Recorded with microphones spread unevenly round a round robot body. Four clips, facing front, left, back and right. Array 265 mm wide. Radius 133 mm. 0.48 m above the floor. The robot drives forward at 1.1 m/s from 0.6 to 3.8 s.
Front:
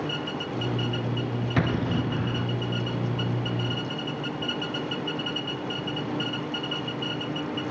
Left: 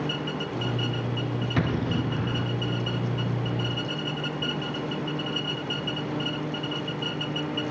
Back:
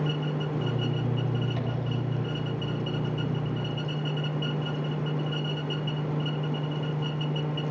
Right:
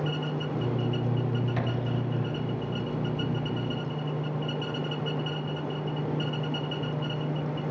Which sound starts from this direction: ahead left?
An explosion, at 1.6 s.